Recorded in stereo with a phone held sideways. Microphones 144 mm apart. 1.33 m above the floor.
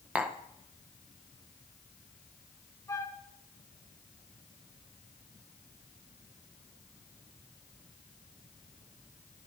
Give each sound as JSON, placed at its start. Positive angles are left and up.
{"t": 0.1, "sound": "tapping", "side_deg": -10, "distance_m": 0.6}
{"t": 2.9, "sound": "a flute", "side_deg": 25, "distance_m": 0.8}